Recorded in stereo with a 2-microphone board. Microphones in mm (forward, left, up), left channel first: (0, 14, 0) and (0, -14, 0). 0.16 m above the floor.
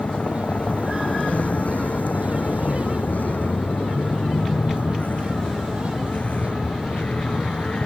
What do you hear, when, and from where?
0.0 s a vehicle: 45° left (ahead or behind); by 7.9 s 50° left (ahead or behind)